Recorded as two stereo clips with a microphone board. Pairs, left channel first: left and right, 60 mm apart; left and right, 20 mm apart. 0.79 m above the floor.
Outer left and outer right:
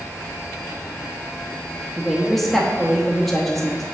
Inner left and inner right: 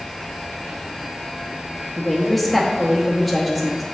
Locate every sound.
2.0 s a woman speaking: 5° left (ahead or behind), 0.9 m